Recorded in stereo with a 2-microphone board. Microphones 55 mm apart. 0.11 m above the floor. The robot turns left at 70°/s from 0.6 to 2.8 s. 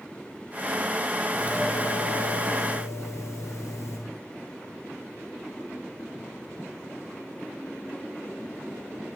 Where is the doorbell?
170° right, 9.5 m; by 4.0 s 90° left, 9.5 m.